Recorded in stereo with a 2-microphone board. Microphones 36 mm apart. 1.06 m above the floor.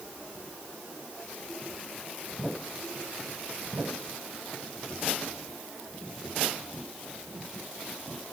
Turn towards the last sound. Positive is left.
No sound to turn to.